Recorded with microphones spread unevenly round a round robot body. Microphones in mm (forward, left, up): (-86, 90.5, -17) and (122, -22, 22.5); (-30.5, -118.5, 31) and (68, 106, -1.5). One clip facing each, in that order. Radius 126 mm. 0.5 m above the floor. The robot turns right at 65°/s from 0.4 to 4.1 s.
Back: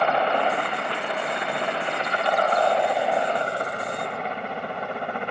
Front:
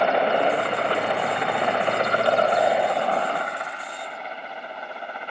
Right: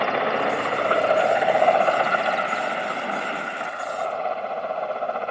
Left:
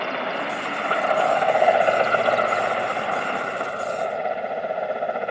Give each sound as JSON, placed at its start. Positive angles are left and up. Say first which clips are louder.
{"t": 0.0, "sound": "a helicopter", "louder": "front 3 dB, right 5 dB", "azimuth_deg": -100}